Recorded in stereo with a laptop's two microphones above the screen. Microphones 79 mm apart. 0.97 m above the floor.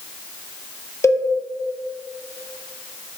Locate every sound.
1.0 s a cowbell: 40° left (ahead or behind), 0.5 m